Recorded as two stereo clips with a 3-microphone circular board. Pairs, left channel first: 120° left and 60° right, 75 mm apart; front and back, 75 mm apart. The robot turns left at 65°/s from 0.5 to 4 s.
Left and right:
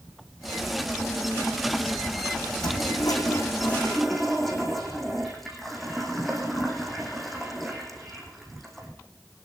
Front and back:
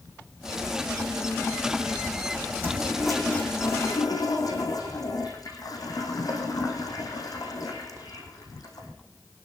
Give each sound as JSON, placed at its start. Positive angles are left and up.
{"t": 2.6, "sound": "a toilet flushing", "azimuth_deg": 120, "distance_m": 4.5}